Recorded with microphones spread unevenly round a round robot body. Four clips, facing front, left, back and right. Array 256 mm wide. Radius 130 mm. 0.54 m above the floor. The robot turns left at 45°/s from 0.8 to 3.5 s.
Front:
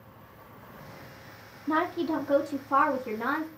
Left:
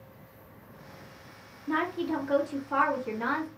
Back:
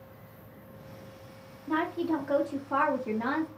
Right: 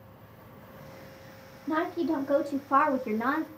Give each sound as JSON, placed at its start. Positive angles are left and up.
{"t": 1.7, "sound": "a woman speaking", "azimuth_deg": -30, "distance_m": 0.9}